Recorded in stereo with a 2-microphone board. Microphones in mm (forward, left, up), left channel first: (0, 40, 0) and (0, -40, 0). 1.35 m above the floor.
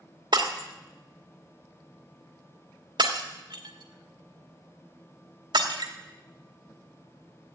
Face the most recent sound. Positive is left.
turn(degrees=-65)  # may be behind; listen again after turning